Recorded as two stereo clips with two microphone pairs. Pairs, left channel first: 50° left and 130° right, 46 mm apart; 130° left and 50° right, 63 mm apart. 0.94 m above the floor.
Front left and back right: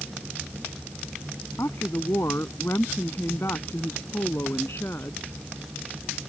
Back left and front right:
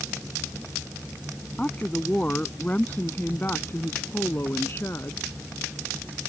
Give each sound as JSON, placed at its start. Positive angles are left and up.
{"t": 1.6, "sound": "a woman speaking", "azimuth_deg": 55}